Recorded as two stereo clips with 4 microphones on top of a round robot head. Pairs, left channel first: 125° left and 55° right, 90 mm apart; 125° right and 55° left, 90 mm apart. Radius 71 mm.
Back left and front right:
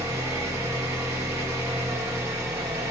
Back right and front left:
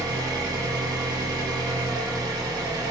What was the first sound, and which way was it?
An engine running, 5° left.